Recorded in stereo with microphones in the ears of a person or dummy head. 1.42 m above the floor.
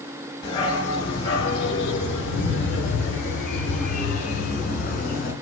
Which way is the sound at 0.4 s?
25° left (ahead or behind).